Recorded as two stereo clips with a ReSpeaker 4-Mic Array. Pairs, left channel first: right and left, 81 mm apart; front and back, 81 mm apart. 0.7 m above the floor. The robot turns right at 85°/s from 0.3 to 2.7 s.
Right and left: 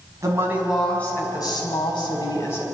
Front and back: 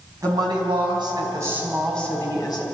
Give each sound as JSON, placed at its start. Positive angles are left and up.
{"t": 0.2, "sound": "a woman speaking", "azimuth_deg": 140, "distance_m": 5.0}